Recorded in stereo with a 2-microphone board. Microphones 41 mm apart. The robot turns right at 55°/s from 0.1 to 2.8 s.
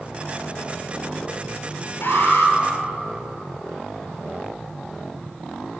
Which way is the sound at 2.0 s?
75° left (ahead or behind).